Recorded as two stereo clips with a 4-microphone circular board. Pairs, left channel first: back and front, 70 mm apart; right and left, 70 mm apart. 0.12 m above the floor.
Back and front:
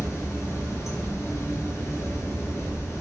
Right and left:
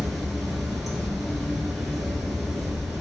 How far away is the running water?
About 0.8 m.